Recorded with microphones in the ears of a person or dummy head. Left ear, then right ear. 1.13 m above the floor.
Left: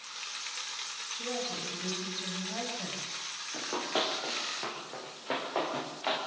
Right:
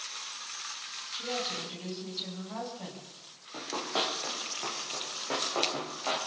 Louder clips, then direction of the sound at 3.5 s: Right 1 dB; 5° left (ahead or behind).